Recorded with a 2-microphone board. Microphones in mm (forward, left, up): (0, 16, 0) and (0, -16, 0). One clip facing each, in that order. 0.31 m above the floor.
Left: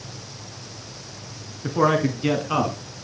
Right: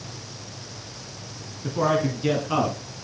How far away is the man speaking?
About 3 m.